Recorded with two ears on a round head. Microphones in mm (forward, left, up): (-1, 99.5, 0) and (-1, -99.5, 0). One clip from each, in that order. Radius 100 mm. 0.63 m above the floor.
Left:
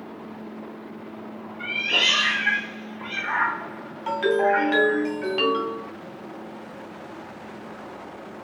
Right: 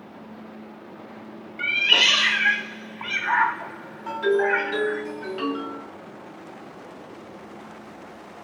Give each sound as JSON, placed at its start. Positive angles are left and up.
{"t": 1.6, "sound": "a cat meowing", "side_deg": -65, "distance_m": 0.6}
{"t": 4.1, "sound": "a ringtone", "side_deg": 20, "distance_m": 2.0}